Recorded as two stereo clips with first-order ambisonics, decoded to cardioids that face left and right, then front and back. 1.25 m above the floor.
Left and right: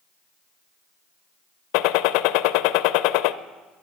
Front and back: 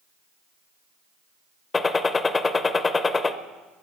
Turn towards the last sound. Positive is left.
turn(degrees=75)